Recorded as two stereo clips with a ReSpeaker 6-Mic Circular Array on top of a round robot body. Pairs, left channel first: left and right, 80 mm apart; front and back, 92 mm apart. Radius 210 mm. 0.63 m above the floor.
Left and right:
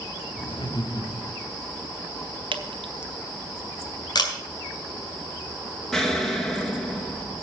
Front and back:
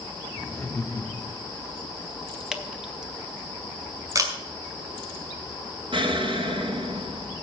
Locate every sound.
0.3 s laughter: 80° left, 2.5 m; by 1.5 s 45° left, 1.7 m
2.5 s dripping: 95° right, 0.9 m
4.2 s a camera shutter: 125° left, 2 m
5.9 s an explosion: 175° left, 2 m